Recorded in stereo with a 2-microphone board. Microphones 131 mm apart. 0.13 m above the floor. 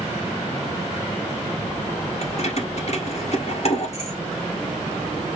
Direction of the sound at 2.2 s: 55° left (ahead or behind).